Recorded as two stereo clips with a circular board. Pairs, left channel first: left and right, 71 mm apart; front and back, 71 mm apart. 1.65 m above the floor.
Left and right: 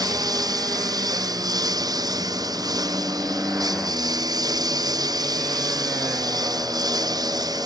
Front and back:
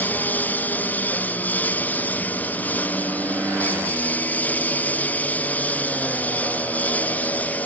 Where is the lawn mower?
65° right; by 7.7 s 70° right.